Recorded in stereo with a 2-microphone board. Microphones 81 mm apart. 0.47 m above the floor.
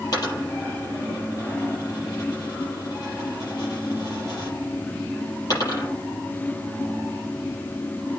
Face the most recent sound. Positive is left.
turn(degrees=45)  # may be behind; listen again after turning